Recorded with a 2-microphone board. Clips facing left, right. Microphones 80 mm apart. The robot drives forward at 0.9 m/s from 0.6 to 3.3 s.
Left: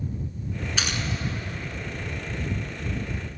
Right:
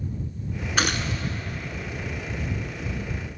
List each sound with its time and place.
0.8 s a gunshot: 55° right (ahead or behind), 0.7 m; by 1.2 s 70° right (ahead or behind), 0.6 m